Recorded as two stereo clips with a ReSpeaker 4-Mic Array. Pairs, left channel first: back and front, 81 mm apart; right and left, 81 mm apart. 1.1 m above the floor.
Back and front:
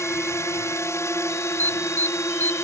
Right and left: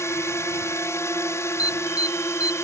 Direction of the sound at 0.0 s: 135° right.